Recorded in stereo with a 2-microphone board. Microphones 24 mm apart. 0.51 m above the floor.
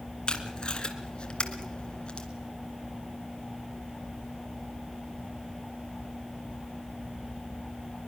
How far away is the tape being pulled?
About 2 m.